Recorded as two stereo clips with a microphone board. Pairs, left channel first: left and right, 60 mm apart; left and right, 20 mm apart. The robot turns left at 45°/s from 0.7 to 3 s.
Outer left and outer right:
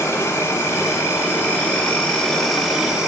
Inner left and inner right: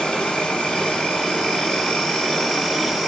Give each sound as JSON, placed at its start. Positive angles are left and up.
{"t": 0.0, "sound": "an insect", "azimuth_deg": 85, "distance_m": 1.8}